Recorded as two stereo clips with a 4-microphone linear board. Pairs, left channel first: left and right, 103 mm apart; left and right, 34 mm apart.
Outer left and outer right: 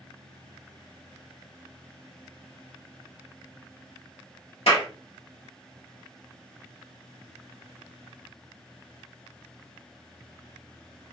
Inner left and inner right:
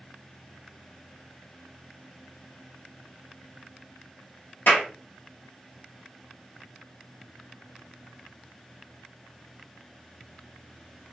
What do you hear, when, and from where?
4.7 s a clap: 80° left, 2.5 m